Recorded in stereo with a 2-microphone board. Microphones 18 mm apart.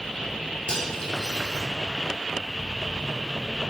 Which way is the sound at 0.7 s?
50° left (ahead or behind).